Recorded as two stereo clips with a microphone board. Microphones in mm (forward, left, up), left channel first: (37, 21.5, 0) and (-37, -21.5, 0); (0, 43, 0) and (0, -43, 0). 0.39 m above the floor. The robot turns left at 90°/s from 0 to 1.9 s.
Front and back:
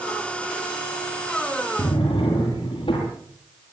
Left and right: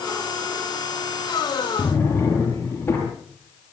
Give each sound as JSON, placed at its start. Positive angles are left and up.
{"t": 1.8, "sound": "a drawer", "azimuth_deg": 35, "distance_m": 7.0}